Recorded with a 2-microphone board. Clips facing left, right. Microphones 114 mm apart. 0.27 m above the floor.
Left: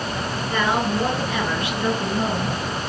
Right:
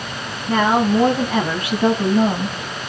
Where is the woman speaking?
45° right (ahead or behind), 2.5 m; by 2.8 s 50° right (ahead or behind), 2 m.